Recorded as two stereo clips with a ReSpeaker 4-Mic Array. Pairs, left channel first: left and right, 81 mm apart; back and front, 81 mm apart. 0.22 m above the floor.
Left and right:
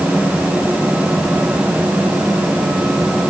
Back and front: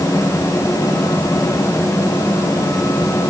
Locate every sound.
Only background noise.